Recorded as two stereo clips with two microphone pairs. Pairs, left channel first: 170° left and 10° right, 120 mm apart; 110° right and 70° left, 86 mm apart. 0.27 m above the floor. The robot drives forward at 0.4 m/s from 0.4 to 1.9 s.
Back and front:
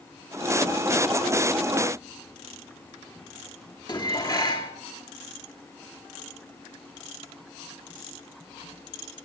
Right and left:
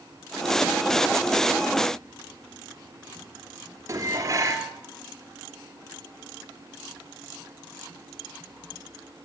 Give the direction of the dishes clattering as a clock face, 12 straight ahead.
8 o'clock.